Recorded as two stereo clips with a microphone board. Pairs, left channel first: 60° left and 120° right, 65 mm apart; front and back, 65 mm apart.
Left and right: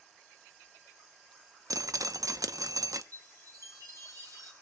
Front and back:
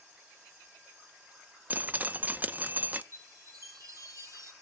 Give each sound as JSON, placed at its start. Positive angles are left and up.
{"t": 1.7, "sound": "dripping", "azimuth_deg": -120, "distance_m": 0.8}
{"t": 3.1, "sound": "a chime", "azimuth_deg": -145, "distance_m": 4.5}